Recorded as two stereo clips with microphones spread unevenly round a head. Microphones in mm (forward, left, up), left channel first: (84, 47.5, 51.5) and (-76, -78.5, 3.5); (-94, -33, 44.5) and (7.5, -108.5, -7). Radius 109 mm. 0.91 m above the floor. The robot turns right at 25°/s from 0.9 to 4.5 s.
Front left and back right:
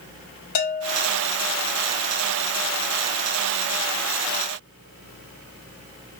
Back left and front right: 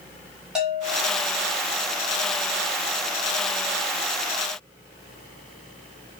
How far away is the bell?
About 1.6 m.